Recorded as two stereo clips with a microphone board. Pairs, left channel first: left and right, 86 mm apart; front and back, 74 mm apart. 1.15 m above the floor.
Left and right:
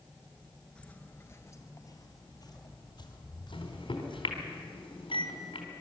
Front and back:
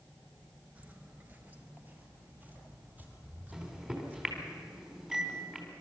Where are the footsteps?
155° left, 1.2 m; by 4.5 s 115° left, 3.5 m.